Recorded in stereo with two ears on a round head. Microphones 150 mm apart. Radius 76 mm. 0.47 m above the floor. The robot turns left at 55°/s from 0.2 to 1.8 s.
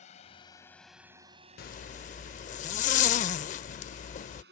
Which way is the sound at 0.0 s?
40° left (ahead or behind).